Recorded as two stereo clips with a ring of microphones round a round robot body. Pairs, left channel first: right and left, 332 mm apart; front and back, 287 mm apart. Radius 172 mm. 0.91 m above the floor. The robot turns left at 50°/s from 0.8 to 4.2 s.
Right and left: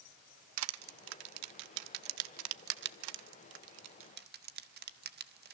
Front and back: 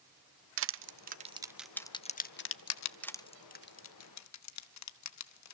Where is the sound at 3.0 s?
85° left, 1.2 m; by 5.5 s 25° left, 1.2 m.